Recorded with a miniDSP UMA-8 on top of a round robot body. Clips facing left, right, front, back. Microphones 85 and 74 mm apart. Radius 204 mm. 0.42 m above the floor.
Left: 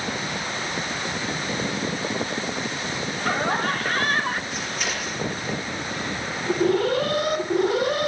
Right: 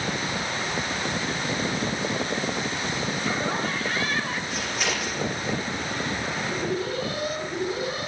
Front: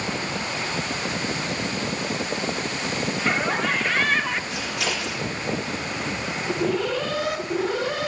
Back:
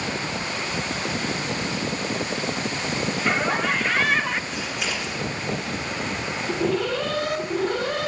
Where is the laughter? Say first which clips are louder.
Left 6 dB, back 1 dB; 90° left, 2.5 m; by 4.4 s 95° left, 1.7 m.